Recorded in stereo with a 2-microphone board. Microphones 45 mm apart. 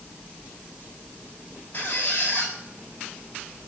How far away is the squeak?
About 7 m.